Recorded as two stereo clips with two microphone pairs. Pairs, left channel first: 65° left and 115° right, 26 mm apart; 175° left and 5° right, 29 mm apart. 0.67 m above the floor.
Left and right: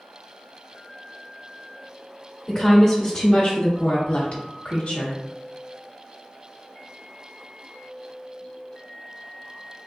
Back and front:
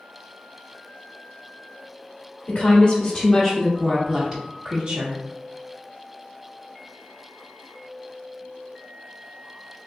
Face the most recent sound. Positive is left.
turn(degrees=30)